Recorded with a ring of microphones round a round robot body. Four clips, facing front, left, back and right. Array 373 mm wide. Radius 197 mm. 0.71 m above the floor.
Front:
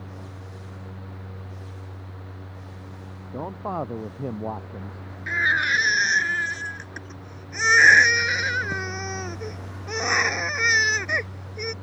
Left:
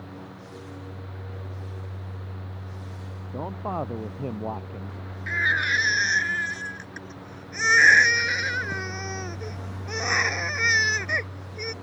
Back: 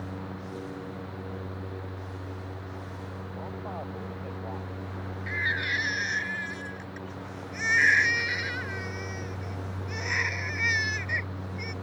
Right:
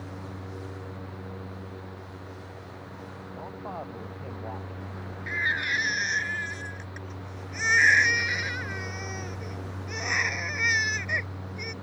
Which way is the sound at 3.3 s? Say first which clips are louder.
Left 8 dB, front 10 dB; 35° left.